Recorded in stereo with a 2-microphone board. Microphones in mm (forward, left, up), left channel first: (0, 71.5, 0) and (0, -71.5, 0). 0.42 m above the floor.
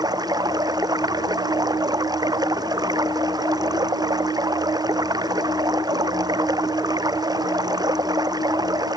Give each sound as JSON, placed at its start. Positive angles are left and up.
{"t": 0.0, "sound": "running water", "side_deg": -30}